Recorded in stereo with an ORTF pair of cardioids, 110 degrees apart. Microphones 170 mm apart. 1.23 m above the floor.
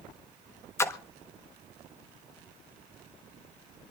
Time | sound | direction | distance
0.8 | a splash | 15° left | 1.3 m